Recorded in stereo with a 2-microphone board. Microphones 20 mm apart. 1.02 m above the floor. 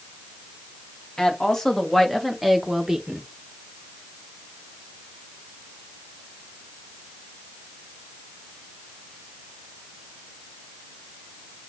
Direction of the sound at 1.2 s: 30° left (ahead or behind).